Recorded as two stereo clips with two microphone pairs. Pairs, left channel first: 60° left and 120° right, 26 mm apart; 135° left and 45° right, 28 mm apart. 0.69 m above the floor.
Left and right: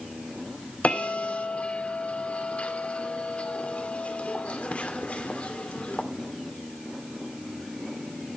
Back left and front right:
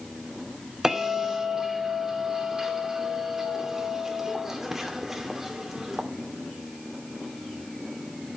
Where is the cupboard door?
No cupboard door in this recording.